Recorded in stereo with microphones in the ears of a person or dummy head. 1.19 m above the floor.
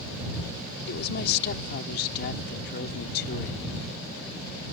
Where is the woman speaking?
55° left (ahead or behind).